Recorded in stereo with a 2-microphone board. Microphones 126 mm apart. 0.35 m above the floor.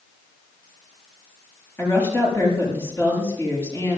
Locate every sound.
1.8 s a woman speaking: 20° left (ahead or behind), 7 m